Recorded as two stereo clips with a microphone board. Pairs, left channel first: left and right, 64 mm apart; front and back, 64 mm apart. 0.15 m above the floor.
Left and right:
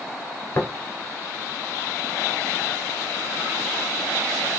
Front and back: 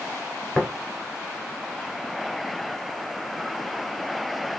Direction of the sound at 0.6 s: 95° left.